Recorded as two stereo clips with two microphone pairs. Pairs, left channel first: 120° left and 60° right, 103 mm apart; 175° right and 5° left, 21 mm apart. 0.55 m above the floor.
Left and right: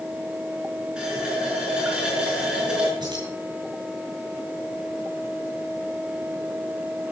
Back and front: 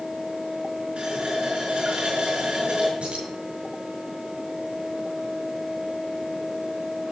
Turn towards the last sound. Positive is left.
turn(degrees=-10)